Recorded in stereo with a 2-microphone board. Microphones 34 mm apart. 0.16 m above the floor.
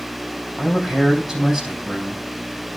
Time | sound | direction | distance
0.6 | a man speaking | 10° right (ahead or behind) | 5 m